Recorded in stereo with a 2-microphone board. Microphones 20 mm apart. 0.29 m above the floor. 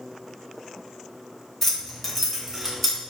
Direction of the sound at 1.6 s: 15° left (ahead or behind).